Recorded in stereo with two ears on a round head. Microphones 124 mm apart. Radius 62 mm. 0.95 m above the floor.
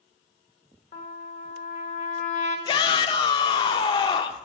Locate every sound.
0.9 s a trumpet: 55° left (ahead or behind), 1.2 m
2.7 s a shout: 35° left (ahead or behind), 0.6 m